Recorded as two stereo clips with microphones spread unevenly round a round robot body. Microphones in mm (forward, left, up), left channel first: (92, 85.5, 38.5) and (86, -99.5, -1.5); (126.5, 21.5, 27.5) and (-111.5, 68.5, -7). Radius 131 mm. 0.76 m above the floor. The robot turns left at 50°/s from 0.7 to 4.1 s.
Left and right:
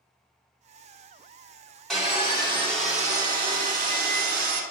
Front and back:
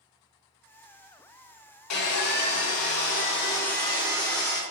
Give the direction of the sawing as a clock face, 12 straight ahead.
12 o'clock.